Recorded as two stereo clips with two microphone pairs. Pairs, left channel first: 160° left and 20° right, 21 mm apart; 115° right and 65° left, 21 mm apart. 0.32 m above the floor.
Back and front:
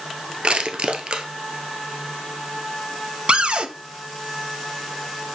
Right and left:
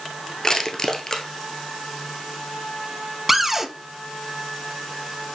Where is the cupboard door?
15° right, 0.7 m.